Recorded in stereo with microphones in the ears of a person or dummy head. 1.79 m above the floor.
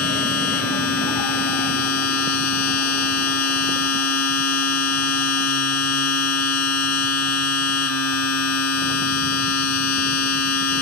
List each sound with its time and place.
0.0 s a machine running: 85° left